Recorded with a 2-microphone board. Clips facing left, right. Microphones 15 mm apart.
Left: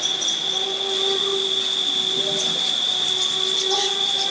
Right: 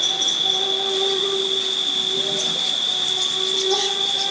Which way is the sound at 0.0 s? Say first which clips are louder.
Right 3 dB; 65° right (ahead or behind).